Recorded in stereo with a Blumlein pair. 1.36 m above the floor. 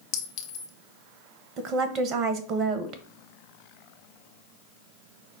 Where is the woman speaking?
30° right, 0.7 m.